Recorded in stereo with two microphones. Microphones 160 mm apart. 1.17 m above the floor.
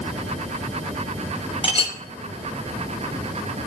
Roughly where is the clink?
Left.